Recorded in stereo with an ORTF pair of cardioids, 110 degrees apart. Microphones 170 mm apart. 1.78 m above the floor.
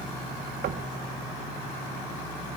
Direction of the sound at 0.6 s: 70° right.